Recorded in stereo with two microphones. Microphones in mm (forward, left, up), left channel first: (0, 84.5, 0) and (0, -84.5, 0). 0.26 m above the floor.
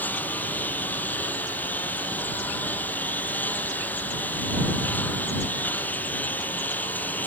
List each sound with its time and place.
0.0 s a lawn mower: 10° left (ahead or behind)